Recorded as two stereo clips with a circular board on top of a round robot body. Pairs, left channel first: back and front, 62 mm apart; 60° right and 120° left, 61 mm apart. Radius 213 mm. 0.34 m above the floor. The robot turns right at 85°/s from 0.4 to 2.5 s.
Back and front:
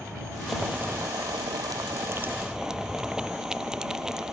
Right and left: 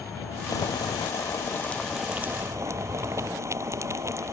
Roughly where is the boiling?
Right.